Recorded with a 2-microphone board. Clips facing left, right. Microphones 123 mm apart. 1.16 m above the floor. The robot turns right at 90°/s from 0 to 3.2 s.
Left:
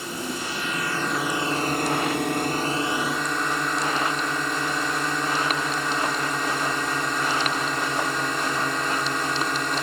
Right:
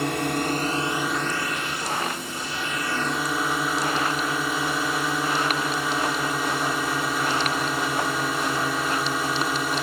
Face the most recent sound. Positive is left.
turn(degrees=-175)